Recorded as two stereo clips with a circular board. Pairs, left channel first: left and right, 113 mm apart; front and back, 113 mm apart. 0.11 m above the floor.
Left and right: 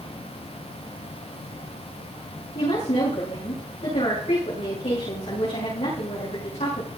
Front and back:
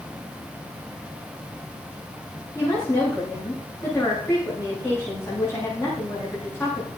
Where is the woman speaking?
65° left, 8.5 m.